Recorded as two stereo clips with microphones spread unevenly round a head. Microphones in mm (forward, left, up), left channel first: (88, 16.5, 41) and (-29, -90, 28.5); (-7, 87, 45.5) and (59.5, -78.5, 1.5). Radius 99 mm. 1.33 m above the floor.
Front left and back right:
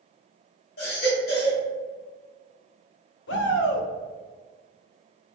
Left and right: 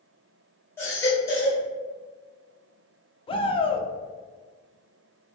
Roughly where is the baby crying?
Ahead left.